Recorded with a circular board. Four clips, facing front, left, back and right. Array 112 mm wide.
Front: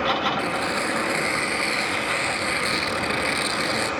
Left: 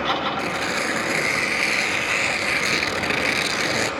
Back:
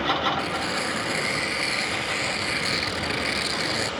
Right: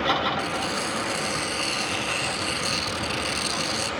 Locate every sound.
0.4 s tearing paper: 85° left, 1.6 m